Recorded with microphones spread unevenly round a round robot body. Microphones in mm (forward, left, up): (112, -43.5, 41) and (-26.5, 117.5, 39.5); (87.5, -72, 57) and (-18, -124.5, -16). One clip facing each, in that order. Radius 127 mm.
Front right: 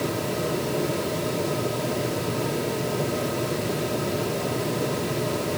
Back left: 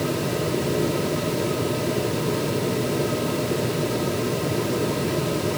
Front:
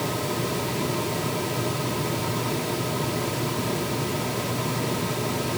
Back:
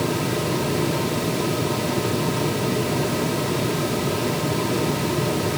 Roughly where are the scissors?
No scissors in this recording.